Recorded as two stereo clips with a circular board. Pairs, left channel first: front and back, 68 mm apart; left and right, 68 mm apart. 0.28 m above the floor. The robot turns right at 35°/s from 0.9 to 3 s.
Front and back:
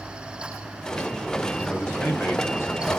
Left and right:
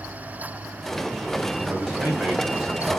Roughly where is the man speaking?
Ahead right.